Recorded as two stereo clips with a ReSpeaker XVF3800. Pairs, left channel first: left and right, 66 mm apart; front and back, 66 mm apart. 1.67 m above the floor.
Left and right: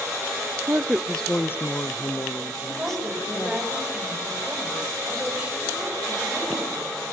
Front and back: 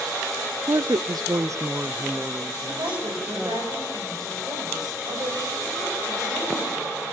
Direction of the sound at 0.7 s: 150° right.